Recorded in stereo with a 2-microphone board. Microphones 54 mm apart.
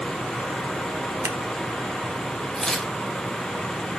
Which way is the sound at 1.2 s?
50° right (ahead or behind).